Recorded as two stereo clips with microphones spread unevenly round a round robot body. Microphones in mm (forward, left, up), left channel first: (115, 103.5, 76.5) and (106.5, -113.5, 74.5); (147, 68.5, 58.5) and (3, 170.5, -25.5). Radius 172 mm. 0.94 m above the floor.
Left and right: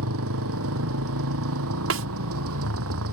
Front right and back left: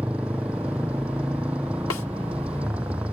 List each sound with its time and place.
0.0 s a motorcycle: 130° right
1.9 s a snare drum: 85° right